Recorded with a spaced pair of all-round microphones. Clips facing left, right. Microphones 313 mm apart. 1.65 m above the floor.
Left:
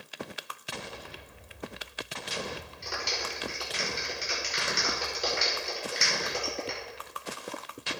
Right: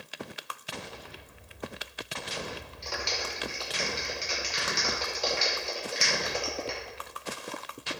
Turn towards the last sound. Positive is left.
turn(degrees=20)  # may be behind; listen again after turning